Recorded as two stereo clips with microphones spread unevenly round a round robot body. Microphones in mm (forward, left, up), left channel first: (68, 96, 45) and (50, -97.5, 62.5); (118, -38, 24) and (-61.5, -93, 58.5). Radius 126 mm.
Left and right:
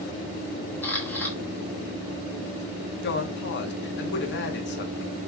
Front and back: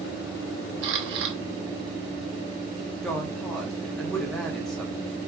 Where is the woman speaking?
100° left, 1.2 m.